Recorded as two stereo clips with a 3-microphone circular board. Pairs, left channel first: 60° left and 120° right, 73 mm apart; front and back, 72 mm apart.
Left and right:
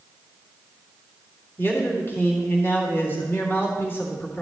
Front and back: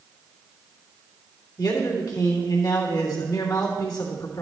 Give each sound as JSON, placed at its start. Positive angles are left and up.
{"t": 1.6, "sound": "a man speaking", "azimuth_deg": 5, "distance_m": 3.0}